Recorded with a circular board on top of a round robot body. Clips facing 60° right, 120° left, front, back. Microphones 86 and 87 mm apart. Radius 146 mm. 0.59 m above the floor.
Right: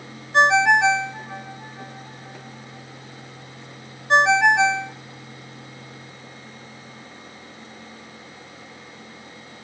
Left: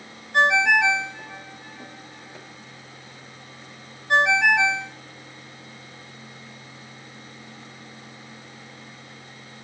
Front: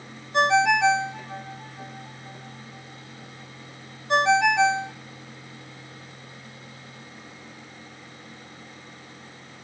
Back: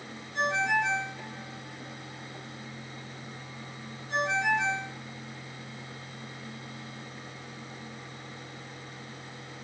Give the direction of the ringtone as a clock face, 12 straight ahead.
12 o'clock.